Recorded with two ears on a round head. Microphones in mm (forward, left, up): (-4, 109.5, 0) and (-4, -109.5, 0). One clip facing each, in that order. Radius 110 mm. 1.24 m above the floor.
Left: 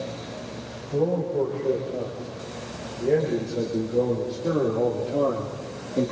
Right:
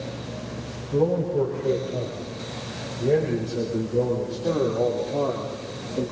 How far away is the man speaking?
About 8.5 m.